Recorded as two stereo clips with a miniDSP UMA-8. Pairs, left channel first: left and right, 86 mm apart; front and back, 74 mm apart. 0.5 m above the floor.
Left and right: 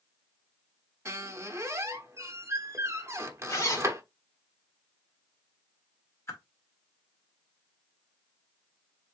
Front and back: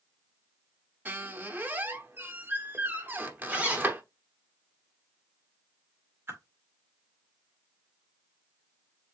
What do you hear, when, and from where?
1.1 s a squeak: 125° right, 0.9 m
3.5 s a zipper: 120° left, 1.6 m
6.3 s a whoosh: 135° left, 1.9 m